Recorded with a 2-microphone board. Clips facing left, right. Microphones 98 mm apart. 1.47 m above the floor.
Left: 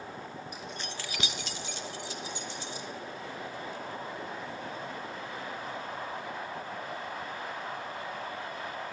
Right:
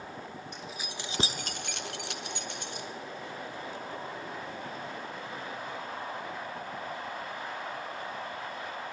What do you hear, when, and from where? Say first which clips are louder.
0.5 s keys jangling: left 1 dB; 5° left (ahead or behind), 1.4 m; by 2.9 s 60° right (ahead or behind), 2.5 m